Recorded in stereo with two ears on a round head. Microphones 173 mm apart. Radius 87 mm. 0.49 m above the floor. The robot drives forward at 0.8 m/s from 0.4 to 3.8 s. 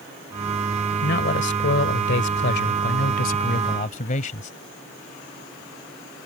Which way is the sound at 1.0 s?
55° left (ahead or behind).